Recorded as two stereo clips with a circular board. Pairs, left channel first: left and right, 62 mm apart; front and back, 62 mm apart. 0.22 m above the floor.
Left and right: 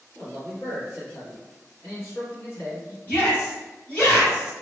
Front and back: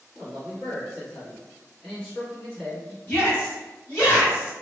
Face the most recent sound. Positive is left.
turn(degrees=45)